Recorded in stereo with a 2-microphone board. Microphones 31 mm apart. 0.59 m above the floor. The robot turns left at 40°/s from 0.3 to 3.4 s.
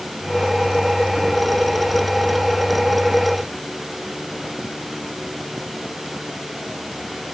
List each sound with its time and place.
Only background noise.